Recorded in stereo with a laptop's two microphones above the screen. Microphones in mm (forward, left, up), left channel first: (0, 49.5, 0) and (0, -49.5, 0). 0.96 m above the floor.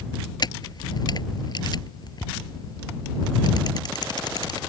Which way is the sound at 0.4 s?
45° left (ahead or behind).